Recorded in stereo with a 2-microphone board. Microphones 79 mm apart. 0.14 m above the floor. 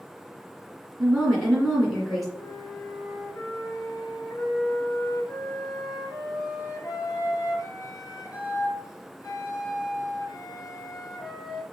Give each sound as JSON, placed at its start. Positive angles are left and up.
{"t": 1.0, "sound": "a woman speaking", "side_deg": 0, "distance_m": 1.7}
{"t": 2.4, "sound": "a flute", "side_deg": 55, "distance_m": 0.8}